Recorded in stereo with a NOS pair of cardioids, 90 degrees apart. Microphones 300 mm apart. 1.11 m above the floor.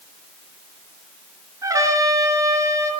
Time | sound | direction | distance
1.6 | a trumpet | 10° right | 9 m